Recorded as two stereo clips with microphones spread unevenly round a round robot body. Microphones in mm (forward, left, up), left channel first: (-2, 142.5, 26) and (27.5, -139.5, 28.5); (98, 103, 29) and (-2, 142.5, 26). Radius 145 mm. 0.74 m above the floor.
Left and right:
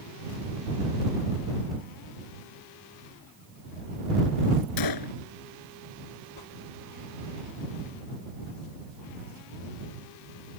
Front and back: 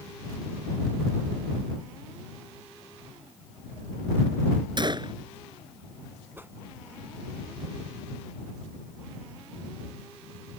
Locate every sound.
4.8 s a gunshot: 110° left
6.4 s a whoosh: 85° left